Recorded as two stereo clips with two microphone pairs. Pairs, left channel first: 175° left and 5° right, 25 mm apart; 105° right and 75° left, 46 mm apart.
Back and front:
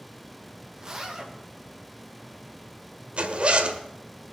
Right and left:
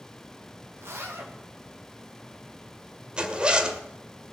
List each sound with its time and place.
0.8 s a zipper: 55° left, 2.0 m
3.2 s a zipper: 5° left, 1.5 m